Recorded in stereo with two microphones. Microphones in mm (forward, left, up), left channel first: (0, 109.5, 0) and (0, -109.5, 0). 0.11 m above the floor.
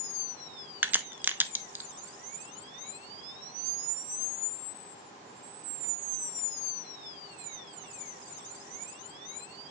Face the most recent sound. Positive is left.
turn(degrees=-10)  # may be behind; listen again after turning